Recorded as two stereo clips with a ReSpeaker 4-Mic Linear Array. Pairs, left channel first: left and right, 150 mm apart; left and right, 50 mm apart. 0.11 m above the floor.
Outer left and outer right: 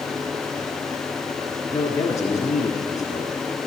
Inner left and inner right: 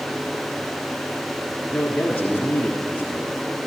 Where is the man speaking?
25° left (ahead or behind), 1.2 m.